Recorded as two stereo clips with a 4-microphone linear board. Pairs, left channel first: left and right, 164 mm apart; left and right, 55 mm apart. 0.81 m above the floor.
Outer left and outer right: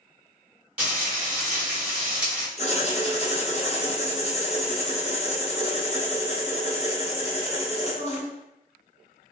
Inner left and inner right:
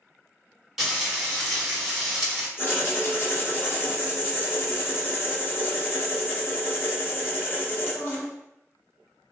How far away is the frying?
About 1.4 m.